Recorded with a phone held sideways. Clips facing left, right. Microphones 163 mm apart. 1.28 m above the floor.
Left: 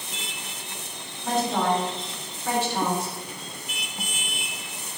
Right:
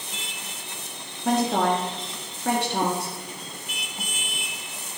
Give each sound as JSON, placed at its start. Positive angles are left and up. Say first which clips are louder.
{"t": 1.2, "sound": "a woman speaking", "louder": "right 2 dB", "side_deg": -65, "distance_m": 1.0}